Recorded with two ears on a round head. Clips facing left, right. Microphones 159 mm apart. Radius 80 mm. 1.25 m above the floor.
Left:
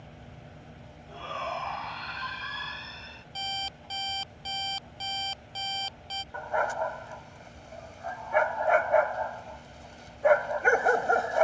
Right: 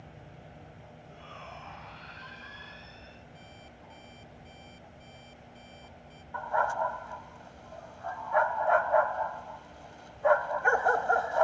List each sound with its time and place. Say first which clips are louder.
1.1 s a shout: left 13 dB; 75° left (ahead or behind)
3.4 s an alarm clock: left 12 dB; 90° left
6.3 s a dog barking: even; 25° left (ahead or behind)